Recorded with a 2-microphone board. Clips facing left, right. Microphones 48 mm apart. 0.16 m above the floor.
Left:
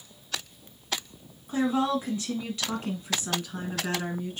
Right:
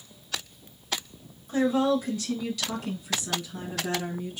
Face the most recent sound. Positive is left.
turn(degrees=50)  # may be behind; listen again after turning